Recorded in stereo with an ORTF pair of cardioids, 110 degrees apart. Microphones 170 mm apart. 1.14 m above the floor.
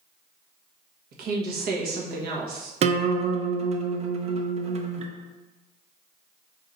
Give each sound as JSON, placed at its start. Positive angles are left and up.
{"t": 1.1, "sound": "a woman speaking", "azimuth_deg": -70, "distance_m": 1.4}
{"t": 2.8, "sound": "a guitar", "azimuth_deg": -40, "distance_m": 0.7}